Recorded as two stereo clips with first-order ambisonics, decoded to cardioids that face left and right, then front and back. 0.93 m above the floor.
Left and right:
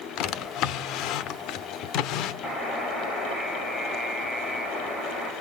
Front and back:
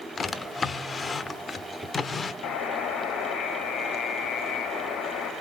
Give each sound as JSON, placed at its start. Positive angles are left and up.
{"t": 0.2, "sound": "a drawer", "azimuth_deg": 70, "distance_m": 0.8}
{"t": 2.4, "sound": "a buzzer", "azimuth_deg": 30, "distance_m": 6.0}